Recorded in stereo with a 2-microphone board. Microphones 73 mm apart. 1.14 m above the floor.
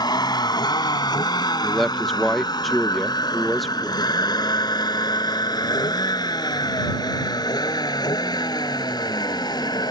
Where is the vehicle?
75° left (ahead or behind); by 9.9 s 70° left (ahead or behind).